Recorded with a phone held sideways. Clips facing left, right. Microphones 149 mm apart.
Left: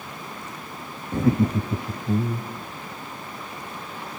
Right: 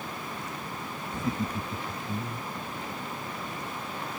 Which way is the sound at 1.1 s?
60° left (ahead or behind).